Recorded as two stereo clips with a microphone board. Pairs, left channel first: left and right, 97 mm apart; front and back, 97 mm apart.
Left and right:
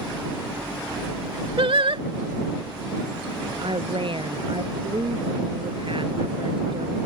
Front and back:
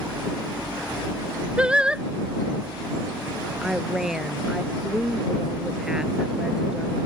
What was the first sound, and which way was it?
Singing, 100° right.